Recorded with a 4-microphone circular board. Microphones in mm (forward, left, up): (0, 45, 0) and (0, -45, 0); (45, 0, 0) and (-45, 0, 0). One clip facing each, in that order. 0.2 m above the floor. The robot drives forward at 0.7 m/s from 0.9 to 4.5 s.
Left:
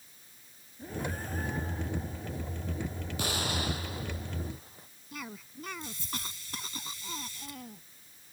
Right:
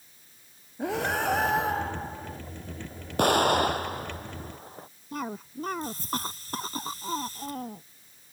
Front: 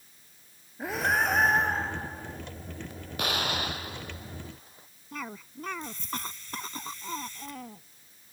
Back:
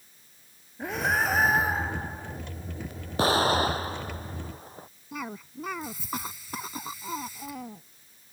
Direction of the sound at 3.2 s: 120° right.